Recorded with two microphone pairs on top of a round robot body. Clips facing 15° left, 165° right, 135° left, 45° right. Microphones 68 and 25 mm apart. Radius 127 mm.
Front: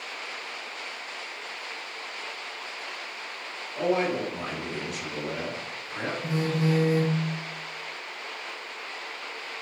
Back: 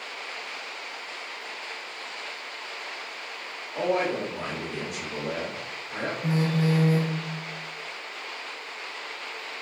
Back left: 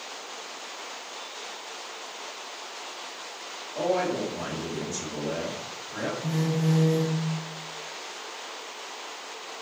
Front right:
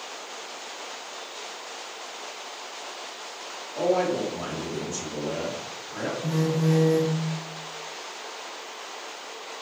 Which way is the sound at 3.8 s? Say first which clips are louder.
Even, front right 2 dB; 170° left.